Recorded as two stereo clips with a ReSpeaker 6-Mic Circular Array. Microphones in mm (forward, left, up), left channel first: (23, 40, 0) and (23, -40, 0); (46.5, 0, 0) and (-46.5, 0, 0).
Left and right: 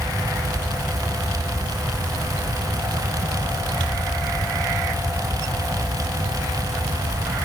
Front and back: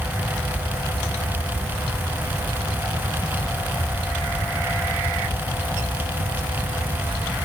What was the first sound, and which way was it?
Only background noise.